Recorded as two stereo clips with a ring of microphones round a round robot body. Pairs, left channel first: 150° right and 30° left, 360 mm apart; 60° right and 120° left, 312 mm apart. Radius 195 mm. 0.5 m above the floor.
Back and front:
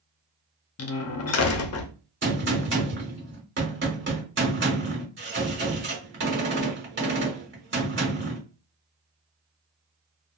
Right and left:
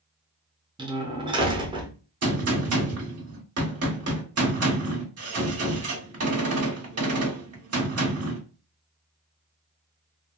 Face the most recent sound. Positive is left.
turn(degrees=85)